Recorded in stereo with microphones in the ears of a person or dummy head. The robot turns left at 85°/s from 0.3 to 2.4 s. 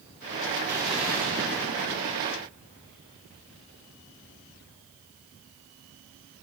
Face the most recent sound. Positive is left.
turn(degrees=-125)